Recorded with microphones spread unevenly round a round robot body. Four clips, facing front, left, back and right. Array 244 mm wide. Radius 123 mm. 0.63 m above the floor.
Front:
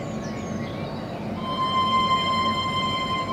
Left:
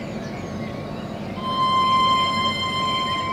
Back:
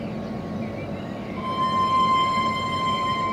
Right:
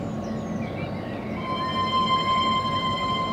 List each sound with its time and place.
1.4 s a violin: 175° left, 1.6 m